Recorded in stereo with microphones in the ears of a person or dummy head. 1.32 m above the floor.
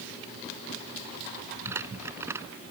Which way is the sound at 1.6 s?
15° right (ahead or behind).